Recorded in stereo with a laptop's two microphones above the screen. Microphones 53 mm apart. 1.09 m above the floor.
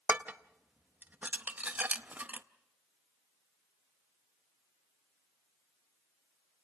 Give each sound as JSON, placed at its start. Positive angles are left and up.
{"t": 0.1, "sound": "dishes clattering", "side_deg": -30, "distance_m": 0.6}